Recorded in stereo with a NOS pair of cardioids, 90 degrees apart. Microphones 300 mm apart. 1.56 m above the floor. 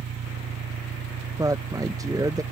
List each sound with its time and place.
0.0 s an engine running: 50° right
1.4 s a woman speaking: 10° right